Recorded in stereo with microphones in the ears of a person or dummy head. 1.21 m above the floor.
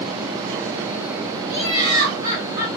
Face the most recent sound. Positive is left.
turn(degrees=-45)  # may be behind; listen again after turning